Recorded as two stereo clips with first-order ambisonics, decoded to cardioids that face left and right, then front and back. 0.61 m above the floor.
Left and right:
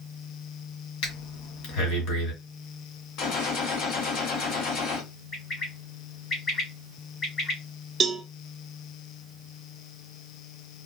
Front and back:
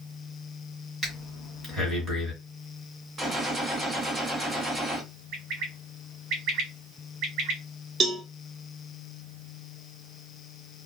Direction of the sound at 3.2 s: 110° left.